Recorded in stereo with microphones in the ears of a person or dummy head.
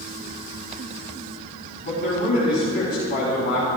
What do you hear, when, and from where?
1.8 s a man speaking: 45° left (ahead or behind), 3 m